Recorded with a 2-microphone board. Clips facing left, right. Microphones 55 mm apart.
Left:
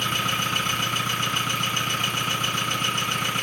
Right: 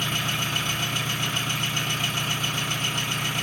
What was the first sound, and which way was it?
An engine running, 45° left (ahead or behind).